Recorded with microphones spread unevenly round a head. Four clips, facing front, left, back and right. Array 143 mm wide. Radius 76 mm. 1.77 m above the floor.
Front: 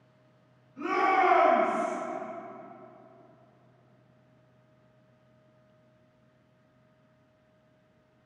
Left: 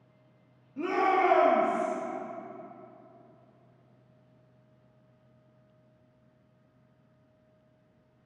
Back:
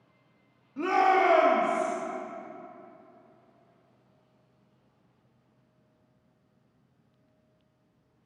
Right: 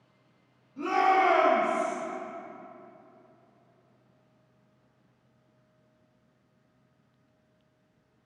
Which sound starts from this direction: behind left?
A shout, at 0.8 s.